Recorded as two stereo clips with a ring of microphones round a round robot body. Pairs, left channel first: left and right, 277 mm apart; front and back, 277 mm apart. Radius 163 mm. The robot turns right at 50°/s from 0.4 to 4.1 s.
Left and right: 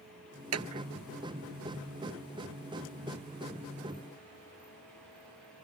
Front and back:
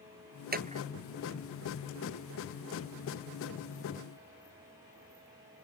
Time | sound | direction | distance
0.5 | a clap | 125° right | ?